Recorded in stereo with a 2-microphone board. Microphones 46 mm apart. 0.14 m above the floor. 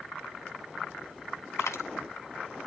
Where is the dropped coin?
80° left, 0.6 m.